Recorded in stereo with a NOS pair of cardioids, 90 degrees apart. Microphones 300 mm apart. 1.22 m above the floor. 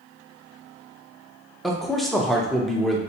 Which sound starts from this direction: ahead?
A man speaking, at 1.6 s.